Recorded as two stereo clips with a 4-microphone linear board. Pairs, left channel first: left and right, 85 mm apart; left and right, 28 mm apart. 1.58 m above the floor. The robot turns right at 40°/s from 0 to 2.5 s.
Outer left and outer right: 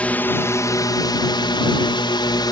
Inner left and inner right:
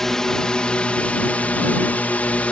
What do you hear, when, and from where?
0.0 s a drone: 15° left; by 2.5 s 115° left